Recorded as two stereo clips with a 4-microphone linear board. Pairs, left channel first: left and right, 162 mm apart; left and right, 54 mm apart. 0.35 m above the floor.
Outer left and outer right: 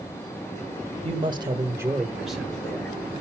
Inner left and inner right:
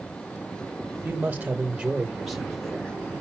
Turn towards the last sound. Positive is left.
turn(degrees=10)  # may be behind; listen again after turning